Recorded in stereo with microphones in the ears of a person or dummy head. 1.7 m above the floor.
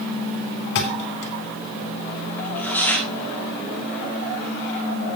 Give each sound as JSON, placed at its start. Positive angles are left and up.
{"t": 0.8, "sound": "a thud", "side_deg": 65, "distance_m": 3.0}
{"t": 2.4, "sound": "tearing paper", "side_deg": 10, "distance_m": 3.5}